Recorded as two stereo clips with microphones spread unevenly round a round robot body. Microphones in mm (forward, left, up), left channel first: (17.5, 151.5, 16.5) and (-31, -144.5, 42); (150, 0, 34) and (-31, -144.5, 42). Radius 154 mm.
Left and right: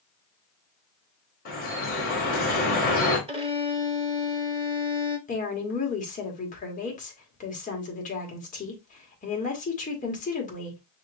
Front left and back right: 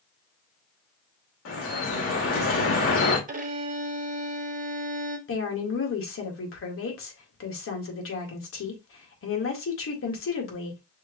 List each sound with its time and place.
1.4 s dripping: 25° left, 2.5 m
3.3 s a violin: 165° right, 0.9 m
5.3 s a woman speaking: 15° left, 1.9 m